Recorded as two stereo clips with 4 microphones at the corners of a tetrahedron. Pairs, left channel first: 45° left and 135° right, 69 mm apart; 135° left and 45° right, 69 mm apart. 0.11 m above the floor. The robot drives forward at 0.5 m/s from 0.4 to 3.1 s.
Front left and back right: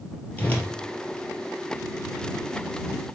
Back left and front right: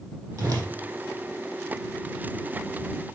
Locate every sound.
0.4 s a whoosh: 20° right, 2 m